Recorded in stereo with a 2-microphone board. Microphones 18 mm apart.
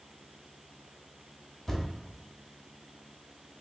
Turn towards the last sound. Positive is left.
turn(degrees=10)  # may be behind; listen again after turning